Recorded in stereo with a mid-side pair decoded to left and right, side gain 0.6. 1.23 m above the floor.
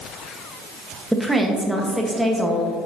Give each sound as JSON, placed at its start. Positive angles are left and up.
{"t": 1.1, "sound": "a woman speaking", "azimuth_deg": -5, "distance_m": 1.3}